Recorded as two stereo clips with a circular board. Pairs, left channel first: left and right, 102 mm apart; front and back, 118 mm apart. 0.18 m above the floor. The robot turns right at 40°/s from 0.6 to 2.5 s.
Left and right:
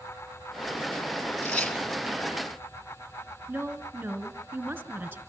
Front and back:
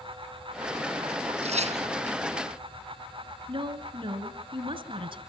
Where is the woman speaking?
155° right, 2 m.